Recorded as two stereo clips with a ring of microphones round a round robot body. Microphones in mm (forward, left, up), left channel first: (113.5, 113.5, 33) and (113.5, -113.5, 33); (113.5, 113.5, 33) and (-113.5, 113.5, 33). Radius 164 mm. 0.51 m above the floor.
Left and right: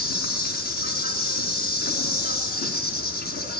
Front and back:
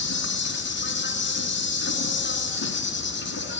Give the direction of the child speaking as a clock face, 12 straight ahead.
I don't hear a child speaking.